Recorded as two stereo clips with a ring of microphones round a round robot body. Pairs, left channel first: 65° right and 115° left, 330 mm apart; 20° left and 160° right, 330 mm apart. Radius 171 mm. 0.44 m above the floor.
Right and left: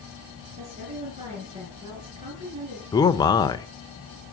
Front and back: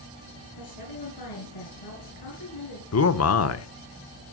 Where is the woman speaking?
40° left, 6 m.